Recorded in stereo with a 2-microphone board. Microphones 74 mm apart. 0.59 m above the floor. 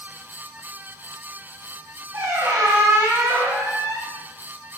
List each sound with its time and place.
2.1 s a squeak: 45° right (ahead or behind), 0.9 m